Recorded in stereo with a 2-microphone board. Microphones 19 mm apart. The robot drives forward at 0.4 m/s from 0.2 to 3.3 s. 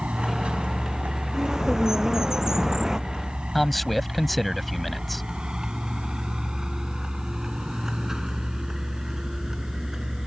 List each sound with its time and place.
0.0 s a vehicle: 75° right (ahead or behind); by 10.3 s 20° right (ahead or behind)
1.3 s a bird: 30° right (ahead or behind)
3.5 s a man speaking: 5° left (ahead or behind)